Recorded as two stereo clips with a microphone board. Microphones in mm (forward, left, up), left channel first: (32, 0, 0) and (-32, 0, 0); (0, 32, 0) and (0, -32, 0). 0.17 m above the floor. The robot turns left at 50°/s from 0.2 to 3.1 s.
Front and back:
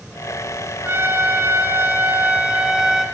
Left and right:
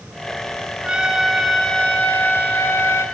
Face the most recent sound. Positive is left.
turn(degrees=90)